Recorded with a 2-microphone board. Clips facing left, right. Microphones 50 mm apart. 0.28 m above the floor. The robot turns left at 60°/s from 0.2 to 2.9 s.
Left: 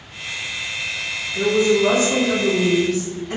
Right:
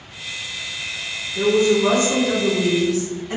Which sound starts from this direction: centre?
A woman speaking, at 1.4 s.